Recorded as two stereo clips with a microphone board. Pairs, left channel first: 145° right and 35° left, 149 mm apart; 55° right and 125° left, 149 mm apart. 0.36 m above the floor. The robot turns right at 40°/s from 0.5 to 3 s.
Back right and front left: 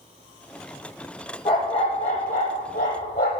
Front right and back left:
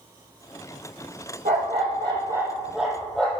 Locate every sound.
1.4 s a dog barking: 155° left, 6.5 m; by 3.4 s 140° right, 6.5 m